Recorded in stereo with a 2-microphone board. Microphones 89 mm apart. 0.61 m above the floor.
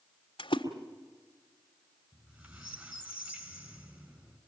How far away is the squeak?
About 4 m.